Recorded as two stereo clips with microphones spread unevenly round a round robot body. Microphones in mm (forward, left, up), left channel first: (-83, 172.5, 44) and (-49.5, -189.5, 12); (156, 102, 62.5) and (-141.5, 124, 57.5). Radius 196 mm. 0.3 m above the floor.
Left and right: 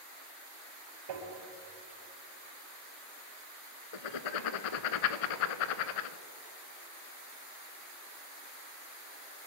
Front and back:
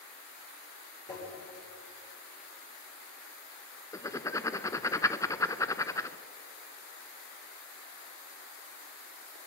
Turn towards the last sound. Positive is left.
turn(degrees=75)